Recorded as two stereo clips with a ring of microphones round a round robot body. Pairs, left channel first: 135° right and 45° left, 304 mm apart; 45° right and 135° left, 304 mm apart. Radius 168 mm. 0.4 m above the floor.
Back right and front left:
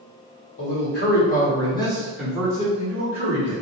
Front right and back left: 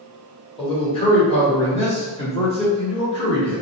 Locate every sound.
0.6 s a man speaking: 110° right, 1.4 m; by 3.6 s 25° left, 1.3 m